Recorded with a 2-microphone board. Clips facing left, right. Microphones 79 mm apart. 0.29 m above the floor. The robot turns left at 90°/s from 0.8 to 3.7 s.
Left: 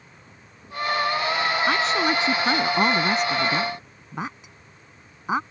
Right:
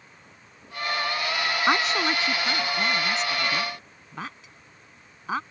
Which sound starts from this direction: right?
A woman speaking, at 1.7 s.